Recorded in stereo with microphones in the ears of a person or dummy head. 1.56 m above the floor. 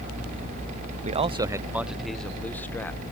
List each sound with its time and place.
1.1 s a man speaking: 40° right (ahead or behind); by 3.0 s 10° left (ahead or behind)